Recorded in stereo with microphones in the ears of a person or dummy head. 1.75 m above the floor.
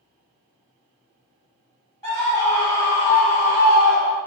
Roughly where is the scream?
Centre.